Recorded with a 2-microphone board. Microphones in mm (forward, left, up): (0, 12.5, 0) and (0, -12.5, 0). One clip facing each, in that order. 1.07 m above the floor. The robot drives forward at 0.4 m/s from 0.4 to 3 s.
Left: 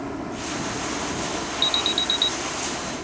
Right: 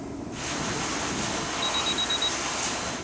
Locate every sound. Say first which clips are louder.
0.0 s a helicopter: left 4 dB; 60° left (ahead or behind)
1.6 s an alarm: left 6 dB; 75° left (ahead or behind)